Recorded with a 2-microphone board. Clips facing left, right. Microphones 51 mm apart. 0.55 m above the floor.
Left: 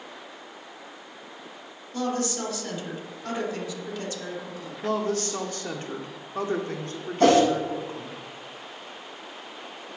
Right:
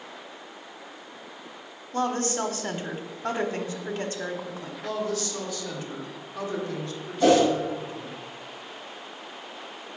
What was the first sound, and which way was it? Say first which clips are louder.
A woman speaking: right 2 dB; 35° right (ahead or behind).